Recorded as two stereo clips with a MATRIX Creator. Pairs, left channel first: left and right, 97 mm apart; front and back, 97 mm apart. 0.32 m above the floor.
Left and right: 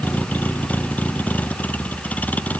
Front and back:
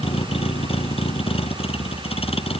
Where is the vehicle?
15° left.